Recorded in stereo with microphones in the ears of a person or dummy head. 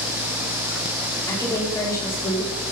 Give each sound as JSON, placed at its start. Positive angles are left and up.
{"t": 1.3, "sound": "a woman speaking", "side_deg": 15, "distance_m": 4.0}